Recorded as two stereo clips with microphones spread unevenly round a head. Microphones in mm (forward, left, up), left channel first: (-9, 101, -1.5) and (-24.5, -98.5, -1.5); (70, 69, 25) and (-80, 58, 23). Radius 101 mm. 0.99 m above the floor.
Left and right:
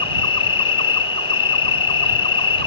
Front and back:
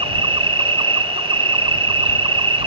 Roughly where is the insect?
Behind left.